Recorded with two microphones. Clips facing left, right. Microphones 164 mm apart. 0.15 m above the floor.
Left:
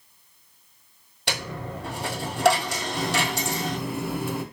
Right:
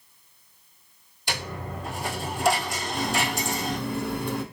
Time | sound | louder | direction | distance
1.3 | a dropped coin | left 1 dB | 75° left (ahead or behind) | 1.5 m
2.9 | a running tap | even | 5° left (ahead or behind) | 1.1 m